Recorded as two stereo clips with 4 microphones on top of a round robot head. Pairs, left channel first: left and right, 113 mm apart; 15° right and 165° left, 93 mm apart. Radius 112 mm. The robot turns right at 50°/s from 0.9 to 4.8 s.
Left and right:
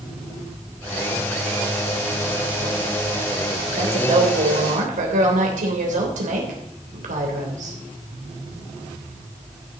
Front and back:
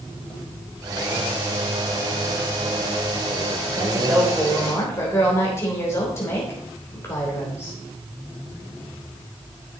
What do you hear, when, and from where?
3.8 s a woman speaking: 130° right, 3.5 m; by 7.8 s 80° right, 3.5 m